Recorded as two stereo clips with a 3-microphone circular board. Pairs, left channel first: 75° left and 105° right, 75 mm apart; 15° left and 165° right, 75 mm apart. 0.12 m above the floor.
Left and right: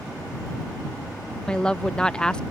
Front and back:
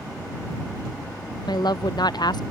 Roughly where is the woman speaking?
Ahead.